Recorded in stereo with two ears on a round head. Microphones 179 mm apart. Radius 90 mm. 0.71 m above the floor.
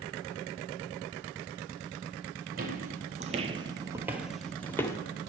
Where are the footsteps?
40° right (ahead or behind), 1.0 m; by 5.0 s 15° left (ahead or behind), 0.8 m.